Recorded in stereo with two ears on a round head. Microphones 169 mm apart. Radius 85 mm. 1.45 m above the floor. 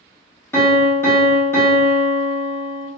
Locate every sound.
0.5 s a piano: 15° left (ahead or behind), 0.8 m